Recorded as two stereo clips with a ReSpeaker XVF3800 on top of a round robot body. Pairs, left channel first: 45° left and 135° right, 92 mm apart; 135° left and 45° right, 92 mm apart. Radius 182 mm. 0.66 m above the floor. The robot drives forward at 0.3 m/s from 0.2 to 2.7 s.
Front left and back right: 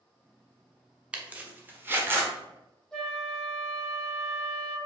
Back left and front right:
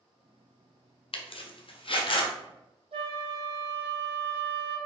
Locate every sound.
1.1 s a zipper: 145° left, 0.6 m; by 2.3 s 160° left, 0.9 m
2.9 s a flute: 40° right, 1.3 m